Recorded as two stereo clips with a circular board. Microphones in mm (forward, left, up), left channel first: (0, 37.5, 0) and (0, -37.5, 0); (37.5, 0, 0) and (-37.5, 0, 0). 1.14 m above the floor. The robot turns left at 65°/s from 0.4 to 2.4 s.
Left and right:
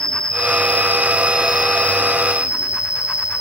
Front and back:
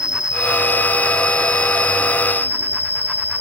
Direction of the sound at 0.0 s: 105° right.